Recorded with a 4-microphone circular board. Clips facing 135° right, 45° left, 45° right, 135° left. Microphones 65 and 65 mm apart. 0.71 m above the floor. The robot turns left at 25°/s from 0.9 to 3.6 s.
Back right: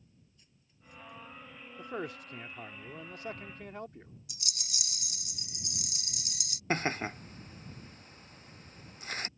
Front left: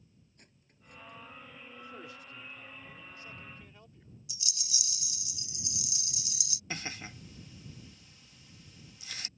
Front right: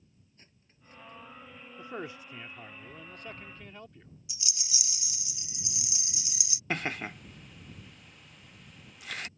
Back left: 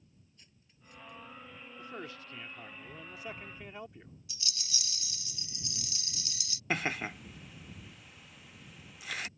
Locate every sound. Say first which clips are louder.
0.4 s cutlery clinking: front left 3 dB, front right 2 dB; 10° left; by 1.2 s 5° left
1.8 s a man speaking: back right 10 dB, front right 5 dB; 105° right; by 4.1 s 150° right
4.3 s a rattle: even, back left 1 dB; 115° right
6.7 s laughter: back right 10 dB, even; 140° right